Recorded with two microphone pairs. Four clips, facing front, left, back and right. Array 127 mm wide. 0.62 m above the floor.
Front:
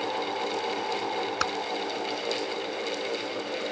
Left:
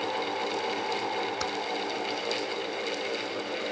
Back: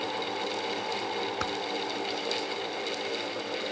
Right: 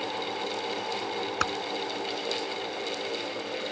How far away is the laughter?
I don't hear laughter.